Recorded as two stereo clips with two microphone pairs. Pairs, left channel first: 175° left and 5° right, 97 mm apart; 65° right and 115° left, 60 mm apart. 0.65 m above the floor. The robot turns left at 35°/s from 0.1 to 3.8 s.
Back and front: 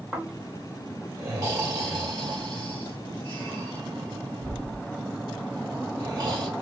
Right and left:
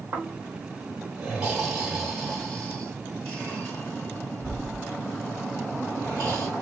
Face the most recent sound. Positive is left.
turn(degrees=-45)